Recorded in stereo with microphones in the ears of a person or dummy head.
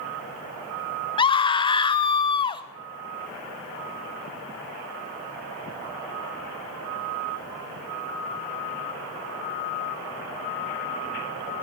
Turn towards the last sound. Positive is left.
turn(degrees=25)  # may be behind; listen again after turning